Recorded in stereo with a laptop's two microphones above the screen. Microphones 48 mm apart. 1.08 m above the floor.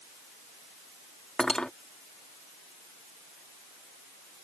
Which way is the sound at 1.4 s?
15° left (ahead or behind).